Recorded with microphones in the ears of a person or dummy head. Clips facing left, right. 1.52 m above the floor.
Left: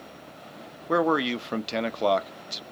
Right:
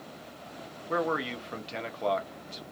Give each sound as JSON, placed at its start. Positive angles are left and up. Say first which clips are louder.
{"t": 0.9, "sound": "a man speaking", "louder": "left 7 dB", "side_deg": 65, "distance_m": 0.6}